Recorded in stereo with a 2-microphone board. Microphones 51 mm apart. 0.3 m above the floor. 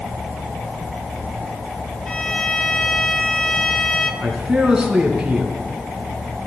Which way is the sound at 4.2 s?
10° right (ahead or behind).